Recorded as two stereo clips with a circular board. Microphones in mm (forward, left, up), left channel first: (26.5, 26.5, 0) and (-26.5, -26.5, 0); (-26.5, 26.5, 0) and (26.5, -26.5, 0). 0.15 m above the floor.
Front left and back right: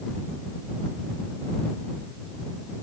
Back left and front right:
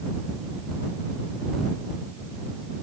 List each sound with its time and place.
Only background noise.